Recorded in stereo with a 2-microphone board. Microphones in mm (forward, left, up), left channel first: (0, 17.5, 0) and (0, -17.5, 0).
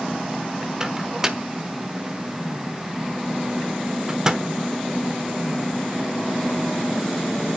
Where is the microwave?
20° right (ahead or behind), 1.0 m.